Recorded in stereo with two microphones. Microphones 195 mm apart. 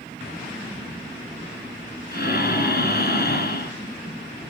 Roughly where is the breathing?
Left.